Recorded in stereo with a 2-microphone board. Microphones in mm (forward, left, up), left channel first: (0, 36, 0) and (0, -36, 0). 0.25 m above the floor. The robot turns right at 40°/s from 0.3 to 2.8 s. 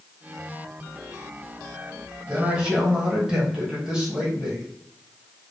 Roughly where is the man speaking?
Centre.